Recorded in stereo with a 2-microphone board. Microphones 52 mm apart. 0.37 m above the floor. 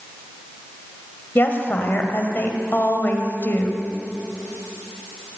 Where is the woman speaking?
45° left (ahead or behind), 2.0 m.